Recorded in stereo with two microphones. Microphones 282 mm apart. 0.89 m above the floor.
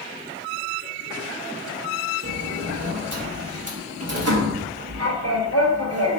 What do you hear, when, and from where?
2.2 s a sliding door: 60° right (ahead or behind), 0.7 m